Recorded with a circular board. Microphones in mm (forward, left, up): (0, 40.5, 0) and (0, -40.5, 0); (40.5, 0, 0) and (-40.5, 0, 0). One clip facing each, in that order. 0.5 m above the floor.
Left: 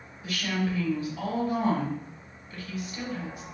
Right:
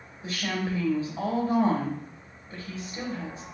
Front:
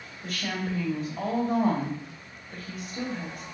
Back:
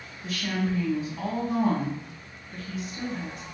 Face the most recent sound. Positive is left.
turn(degrees=-30)